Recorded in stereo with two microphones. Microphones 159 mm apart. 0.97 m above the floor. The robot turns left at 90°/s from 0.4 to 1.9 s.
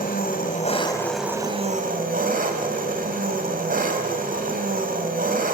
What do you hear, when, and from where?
0.0 s an engine running: 70° left, 3 m; by 5.5 s 65° right, 3 m